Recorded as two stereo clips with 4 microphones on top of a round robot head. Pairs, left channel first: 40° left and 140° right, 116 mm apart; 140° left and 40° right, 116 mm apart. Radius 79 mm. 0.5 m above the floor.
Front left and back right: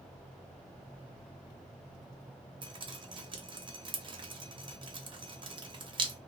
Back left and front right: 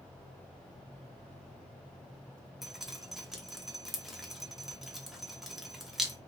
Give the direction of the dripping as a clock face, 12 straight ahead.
4 o'clock.